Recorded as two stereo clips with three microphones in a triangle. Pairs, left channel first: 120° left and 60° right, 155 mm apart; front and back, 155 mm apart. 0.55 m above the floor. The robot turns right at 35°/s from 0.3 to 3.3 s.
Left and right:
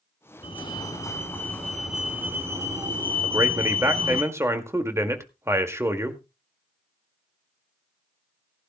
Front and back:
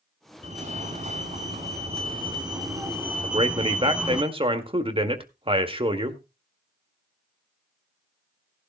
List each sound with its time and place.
0.4 s a fire alarm: 160° left, 2.5 m; by 4.2 s 100° right, 2.5 m
3.2 s a man speaking: 130° right, 1.7 m